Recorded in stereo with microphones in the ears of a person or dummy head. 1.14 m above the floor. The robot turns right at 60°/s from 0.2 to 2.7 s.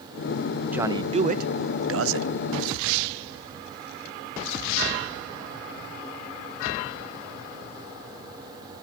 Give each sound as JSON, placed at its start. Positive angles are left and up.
{"t": 0.7, "sound": "a man speaking", "azimuth_deg": -165, "distance_m": 0.6}